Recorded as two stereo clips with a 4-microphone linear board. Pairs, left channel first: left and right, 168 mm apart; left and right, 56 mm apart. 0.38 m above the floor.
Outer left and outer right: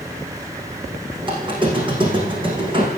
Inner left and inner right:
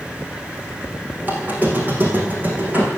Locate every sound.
1.2 s a squeak: 30° right (ahead or behind), 5.5 m